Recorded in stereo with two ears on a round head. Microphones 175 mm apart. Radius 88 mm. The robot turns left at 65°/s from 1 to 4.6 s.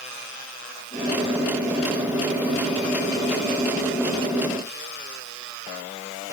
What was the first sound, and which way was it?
Only background noise.